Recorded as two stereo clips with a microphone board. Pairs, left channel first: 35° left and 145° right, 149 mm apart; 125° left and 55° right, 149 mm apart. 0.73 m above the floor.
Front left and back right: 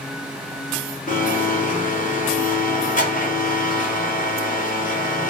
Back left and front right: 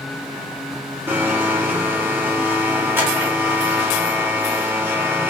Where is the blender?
20° left, 0.7 m.